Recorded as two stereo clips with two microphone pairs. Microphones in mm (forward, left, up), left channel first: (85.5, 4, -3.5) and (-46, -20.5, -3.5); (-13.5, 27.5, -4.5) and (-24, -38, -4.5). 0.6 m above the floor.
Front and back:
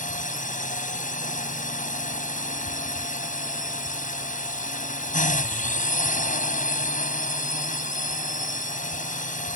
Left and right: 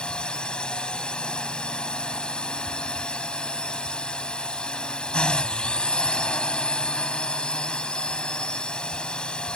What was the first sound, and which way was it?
A drone, 5° left.